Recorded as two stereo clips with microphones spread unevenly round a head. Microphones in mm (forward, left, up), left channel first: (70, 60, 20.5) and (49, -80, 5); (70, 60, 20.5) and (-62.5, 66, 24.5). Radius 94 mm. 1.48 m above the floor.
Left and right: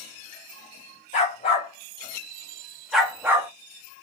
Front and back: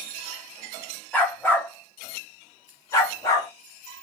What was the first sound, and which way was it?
A dog barking, 75° left.